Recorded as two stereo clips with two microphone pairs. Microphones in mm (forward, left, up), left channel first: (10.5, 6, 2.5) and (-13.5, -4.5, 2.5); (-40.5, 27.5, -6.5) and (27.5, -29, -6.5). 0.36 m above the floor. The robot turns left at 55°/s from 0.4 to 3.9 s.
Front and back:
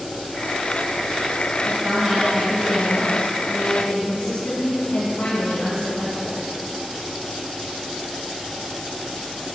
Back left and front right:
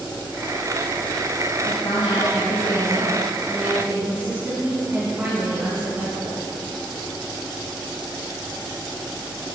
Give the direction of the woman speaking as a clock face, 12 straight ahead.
7 o'clock.